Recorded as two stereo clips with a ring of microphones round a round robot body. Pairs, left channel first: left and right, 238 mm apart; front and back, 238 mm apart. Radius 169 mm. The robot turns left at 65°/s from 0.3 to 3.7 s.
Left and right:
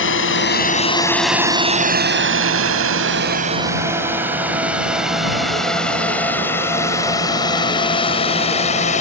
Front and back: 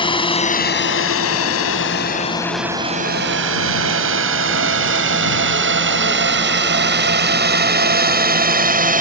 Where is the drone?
65° left; by 9.0 s 145° left.